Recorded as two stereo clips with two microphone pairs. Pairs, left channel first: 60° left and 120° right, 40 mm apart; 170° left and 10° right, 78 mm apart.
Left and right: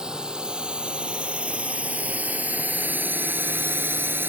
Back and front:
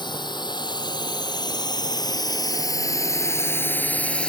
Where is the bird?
No bird in this recording.